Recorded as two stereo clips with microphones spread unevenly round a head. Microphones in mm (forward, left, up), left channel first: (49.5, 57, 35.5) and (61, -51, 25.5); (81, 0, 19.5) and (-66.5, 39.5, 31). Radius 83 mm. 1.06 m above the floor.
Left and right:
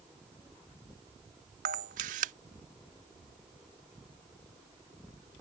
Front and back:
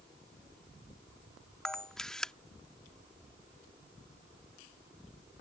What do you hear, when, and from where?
1.6 s a camera shutter: 105° right